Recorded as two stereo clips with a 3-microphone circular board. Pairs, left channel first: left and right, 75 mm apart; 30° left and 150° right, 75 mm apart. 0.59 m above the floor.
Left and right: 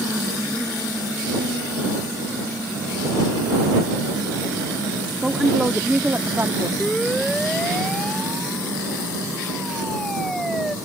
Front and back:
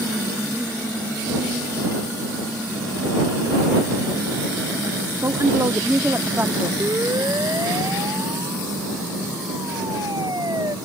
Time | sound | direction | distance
5.2 | a woman speaking | 175° right | ?
6.8 | a siren | 175° left | ?